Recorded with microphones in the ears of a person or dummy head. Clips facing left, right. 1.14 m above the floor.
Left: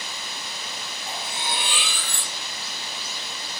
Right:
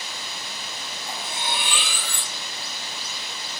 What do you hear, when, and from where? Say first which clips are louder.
1.1 s cutlery clinking: right 1 dB; 80° right, 1.3 m